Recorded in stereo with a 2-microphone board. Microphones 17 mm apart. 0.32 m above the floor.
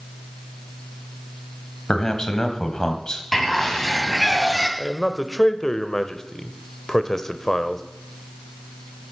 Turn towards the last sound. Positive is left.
turn(degrees=20)  # may be behind; listen again after turning